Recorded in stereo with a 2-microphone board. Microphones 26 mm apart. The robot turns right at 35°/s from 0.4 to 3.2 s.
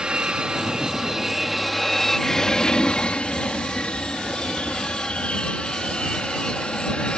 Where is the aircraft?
45° right; by 7.2 s 55° left.